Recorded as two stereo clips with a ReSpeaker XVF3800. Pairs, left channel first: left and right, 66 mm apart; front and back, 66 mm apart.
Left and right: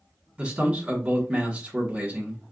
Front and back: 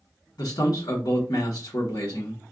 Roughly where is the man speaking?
Ahead.